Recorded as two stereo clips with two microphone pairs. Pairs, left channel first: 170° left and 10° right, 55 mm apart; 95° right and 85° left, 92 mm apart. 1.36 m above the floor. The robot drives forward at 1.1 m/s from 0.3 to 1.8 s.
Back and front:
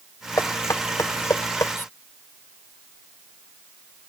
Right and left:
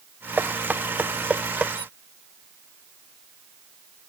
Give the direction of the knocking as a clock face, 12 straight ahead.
7 o'clock.